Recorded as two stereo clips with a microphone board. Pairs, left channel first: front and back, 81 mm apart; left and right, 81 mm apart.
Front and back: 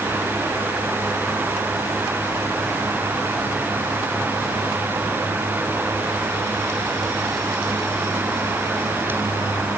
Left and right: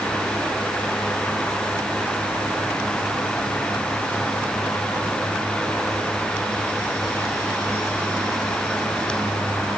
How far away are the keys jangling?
No keys jangling in this recording.